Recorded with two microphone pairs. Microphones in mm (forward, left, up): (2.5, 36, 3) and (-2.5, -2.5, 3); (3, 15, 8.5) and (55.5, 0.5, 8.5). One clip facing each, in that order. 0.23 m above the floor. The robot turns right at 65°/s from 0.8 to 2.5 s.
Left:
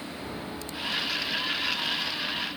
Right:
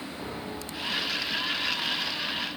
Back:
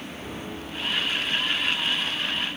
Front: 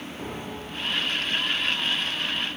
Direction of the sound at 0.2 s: 20° right.